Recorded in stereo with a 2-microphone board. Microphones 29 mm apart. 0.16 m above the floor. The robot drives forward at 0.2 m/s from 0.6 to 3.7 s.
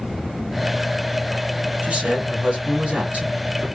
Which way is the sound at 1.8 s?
45° right (ahead or behind).